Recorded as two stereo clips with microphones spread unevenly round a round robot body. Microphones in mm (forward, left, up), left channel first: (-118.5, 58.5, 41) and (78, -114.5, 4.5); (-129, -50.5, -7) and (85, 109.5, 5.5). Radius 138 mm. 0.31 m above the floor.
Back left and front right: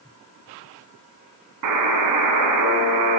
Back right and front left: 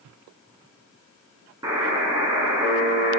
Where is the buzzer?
45° right, 0.9 m.